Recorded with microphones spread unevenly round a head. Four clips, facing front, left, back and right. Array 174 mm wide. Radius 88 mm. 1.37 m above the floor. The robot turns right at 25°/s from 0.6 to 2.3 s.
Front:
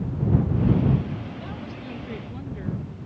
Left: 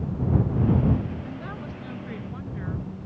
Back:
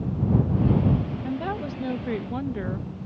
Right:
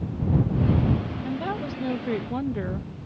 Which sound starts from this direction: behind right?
A woman speaking, at 1.2 s.